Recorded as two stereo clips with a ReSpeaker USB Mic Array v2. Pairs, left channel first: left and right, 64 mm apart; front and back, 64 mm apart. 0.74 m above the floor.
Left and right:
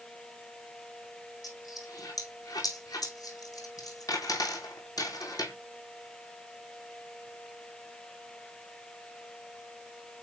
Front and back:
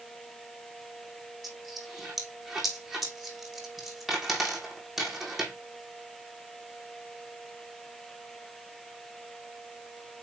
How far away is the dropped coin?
About 2.5 m.